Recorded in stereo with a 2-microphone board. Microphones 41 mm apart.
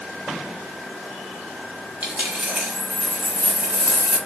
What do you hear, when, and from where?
2.0 s a dropped coin: 40° right (ahead or behind), 1.6 m